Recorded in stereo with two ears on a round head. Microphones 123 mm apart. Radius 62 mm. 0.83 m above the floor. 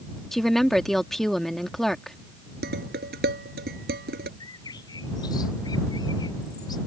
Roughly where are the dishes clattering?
Right.